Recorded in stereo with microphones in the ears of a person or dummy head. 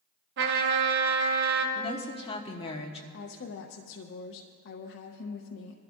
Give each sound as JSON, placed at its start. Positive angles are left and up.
{"t": 0.4, "sound": "a trumpet", "side_deg": -60, "distance_m": 1.3}
{"t": 1.8, "sound": "a woman speaking", "side_deg": 30, "distance_m": 1.3}
{"t": 3.1, "sound": "a woman speaking", "side_deg": 65, "distance_m": 0.7}